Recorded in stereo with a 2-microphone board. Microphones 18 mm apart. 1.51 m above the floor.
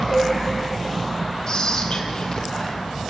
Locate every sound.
0.1 s a cowbell: 30° right (ahead or behind), 6.5 m
1.5 s whispering: 45° left (ahead or behind), 1.0 m